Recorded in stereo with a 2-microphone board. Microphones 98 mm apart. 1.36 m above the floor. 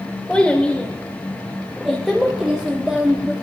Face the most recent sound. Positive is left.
turn(degrees=-15)  # may be behind; listen again after turning